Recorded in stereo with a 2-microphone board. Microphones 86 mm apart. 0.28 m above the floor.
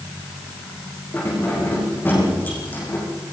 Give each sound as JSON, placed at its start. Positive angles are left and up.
{"t": 1.1, "sound": "keys jangling", "side_deg": 20, "distance_m": 9.5}